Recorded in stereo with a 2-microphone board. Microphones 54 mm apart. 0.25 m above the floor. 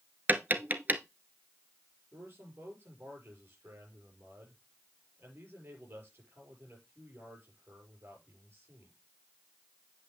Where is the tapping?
35° right (ahead or behind), 0.8 m.